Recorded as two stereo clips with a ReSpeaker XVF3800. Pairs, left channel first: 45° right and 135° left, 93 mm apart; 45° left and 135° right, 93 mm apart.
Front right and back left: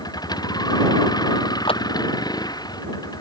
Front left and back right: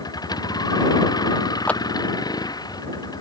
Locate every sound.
0.0 s a vehicle: straight ahead
1.7 s a clap: 30° right